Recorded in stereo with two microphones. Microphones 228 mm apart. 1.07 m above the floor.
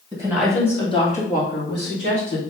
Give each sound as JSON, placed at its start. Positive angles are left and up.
{"t": 0.1, "sound": "a woman speaking", "side_deg": -15, "distance_m": 1.6}